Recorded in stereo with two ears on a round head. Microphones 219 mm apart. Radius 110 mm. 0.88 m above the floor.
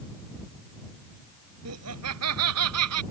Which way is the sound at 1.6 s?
70° right (ahead or behind).